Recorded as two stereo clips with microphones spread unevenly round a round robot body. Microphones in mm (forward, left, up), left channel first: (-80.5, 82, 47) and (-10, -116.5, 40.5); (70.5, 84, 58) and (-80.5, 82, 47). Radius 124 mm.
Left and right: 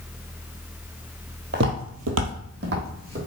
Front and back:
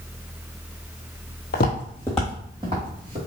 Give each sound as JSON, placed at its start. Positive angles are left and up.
{"t": 1.5, "sound": "footsteps", "azimuth_deg": -20, "distance_m": 0.8}